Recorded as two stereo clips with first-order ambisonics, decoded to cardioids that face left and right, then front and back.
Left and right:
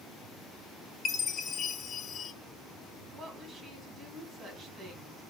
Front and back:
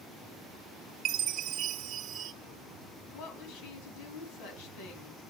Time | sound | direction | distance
1.1 | a chime | 145° left | 0.9 m
3.1 | a woman speaking | 20° right | 3.5 m